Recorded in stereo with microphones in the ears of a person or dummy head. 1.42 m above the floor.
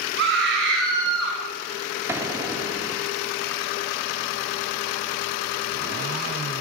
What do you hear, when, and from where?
0.2 s a scream: 65° right (ahead or behind), 6.5 m; by 1.4 s 75° right (ahead or behind), 5 m
2.1 s an explosion: 10° right (ahead or behind), 4 m